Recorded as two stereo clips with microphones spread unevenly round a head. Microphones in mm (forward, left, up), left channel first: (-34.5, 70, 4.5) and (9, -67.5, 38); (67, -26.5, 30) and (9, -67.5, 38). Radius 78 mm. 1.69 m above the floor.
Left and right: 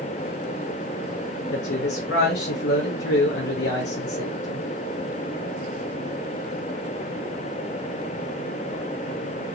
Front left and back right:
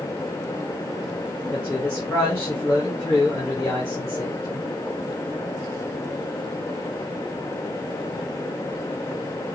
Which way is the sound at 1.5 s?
110° left.